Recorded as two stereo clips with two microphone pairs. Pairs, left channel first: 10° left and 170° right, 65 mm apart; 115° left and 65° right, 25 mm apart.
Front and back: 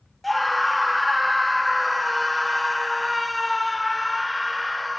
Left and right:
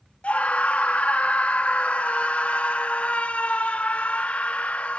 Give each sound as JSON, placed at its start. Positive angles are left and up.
{"t": 0.2, "sound": "a scream", "azimuth_deg": 100, "distance_m": 0.9}